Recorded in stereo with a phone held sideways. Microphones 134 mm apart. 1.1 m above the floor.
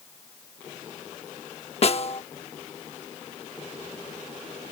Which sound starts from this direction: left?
A snare drum, at 1.8 s.